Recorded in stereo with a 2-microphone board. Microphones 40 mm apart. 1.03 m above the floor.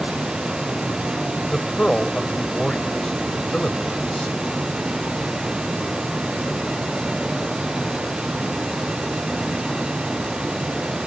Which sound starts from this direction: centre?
A man speaking, at 1.5 s.